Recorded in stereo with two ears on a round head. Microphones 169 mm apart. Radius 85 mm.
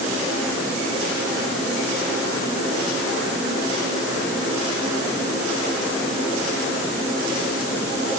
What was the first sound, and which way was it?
Only background noise.